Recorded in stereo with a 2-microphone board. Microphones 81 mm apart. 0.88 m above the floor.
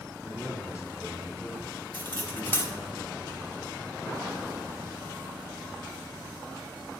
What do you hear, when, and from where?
0.2 s a man speaking: 10° right (ahead or behind), 3 m; by 2.9 s 35° right (ahead or behind), 1.6 m
1.9 s cutlery clinking: 25° left (ahead or behind), 1.4 m